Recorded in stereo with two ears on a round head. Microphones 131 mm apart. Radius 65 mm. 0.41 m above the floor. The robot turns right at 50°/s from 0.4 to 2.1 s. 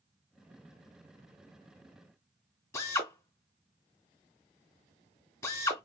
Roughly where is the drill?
Left.